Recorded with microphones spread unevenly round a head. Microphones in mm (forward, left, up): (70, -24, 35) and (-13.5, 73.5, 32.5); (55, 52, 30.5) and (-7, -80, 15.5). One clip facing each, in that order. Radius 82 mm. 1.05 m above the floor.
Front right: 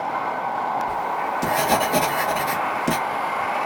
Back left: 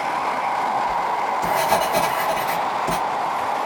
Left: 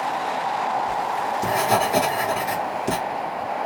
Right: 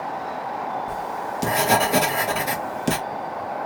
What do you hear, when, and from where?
0.9 s writing: 90° right, 1.2 m